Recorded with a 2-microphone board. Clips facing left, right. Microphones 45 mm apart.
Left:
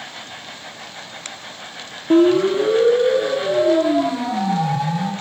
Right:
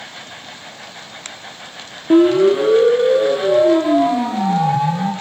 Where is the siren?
15° right (ahead or behind), 3.5 m; by 5.1 s 25° right (ahead or behind), 6 m.